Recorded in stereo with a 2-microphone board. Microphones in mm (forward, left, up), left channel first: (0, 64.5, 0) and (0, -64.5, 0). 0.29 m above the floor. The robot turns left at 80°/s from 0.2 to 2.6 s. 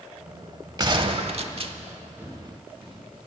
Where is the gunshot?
40° right, 0.7 m; by 1.8 s 120° right, 0.7 m.